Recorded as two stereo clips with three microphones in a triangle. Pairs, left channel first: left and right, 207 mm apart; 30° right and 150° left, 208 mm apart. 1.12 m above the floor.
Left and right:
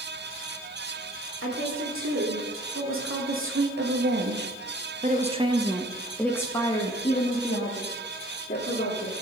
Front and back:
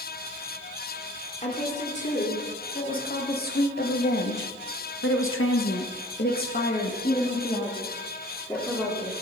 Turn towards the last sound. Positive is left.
turn(degrees=50)